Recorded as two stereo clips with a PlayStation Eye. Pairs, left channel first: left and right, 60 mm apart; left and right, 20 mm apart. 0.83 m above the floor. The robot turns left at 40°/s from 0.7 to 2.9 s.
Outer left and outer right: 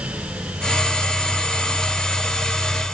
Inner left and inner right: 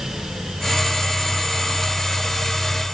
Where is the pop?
No pop in this recording.